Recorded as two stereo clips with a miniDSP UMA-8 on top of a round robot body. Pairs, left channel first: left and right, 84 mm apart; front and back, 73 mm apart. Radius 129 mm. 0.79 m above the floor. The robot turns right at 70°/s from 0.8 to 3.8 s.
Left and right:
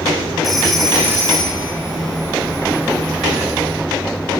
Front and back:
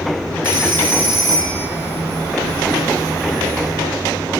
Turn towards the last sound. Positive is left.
turn(degrees=35)